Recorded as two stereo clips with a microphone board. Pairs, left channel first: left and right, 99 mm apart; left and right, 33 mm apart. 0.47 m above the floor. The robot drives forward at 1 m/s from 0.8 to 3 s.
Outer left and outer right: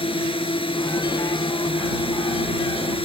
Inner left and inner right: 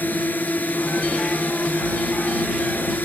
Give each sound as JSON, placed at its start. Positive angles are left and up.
{"t": 0.0, "sound": "a drone", "side_deg": 65}